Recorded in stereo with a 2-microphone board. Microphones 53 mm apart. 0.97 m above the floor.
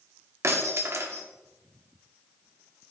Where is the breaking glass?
60° right (ahead or behind), 1.2 m.